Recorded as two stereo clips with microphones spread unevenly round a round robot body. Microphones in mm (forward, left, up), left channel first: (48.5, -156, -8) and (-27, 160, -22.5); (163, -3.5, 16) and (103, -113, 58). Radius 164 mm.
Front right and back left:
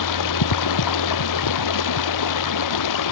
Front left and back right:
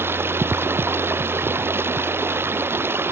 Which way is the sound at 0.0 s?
50° right.